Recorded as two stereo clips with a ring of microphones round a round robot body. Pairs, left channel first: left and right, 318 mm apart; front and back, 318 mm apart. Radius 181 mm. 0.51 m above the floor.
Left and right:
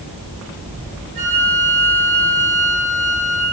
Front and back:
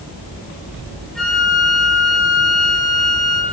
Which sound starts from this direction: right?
A flute, at 1.1 s.